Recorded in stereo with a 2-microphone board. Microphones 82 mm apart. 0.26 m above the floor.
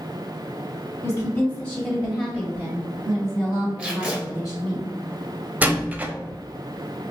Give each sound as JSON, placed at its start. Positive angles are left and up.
{"t": 1.0, "sound": "a woman speaking", "side_deg": 25, "distance_m": 1.5}
{"t": 3.8, "sound": "tape being pulled", "side_deg": -15, "distance_m": 1.8}
{"t": 5.6, "sound": "a door slam", "side_deg": -20, "distance_m": 0.6}